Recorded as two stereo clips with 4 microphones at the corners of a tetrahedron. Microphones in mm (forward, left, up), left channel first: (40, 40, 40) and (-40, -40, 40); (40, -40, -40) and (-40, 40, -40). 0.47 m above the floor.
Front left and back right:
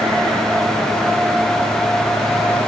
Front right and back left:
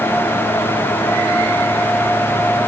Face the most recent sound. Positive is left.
No sound to turn to.